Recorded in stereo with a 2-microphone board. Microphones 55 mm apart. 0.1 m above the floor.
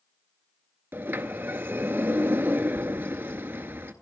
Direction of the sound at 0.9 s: 40° right (ahead or behind).